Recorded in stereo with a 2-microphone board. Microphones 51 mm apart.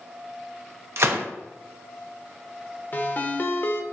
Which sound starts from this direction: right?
A gunshot, at 1.0 s.